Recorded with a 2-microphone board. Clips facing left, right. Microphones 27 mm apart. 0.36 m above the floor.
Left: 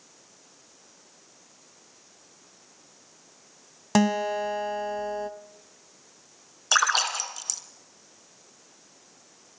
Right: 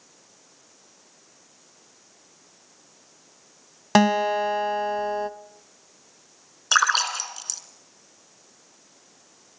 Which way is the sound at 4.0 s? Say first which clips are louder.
Right 4 dB; 35° right (ahead or behind).